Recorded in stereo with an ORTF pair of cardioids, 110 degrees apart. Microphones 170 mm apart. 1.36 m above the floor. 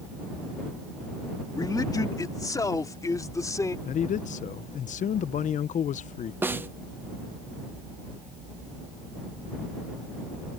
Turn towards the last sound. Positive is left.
turn(degrees=-15)